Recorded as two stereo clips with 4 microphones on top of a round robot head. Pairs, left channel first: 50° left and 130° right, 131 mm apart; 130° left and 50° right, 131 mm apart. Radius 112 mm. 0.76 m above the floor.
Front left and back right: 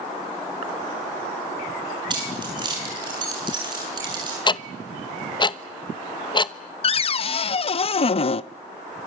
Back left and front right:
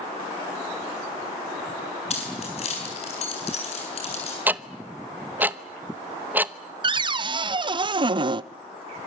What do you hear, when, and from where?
2.1 s keys jangling: 170° left, 8 m
4.5 s ticking: 20° left, 1.0 m
6.8 s a cupboard door: 5° left, 0.6 m